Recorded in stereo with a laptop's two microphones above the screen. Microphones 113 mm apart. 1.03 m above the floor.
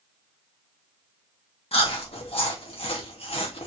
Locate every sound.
1.7 s chewing: 55° left (ahead or behind), 1.0 m